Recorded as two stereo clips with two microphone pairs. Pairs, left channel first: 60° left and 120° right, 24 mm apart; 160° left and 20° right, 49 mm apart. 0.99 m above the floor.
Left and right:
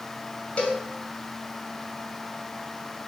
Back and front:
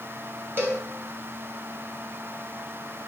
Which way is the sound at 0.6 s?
25° left.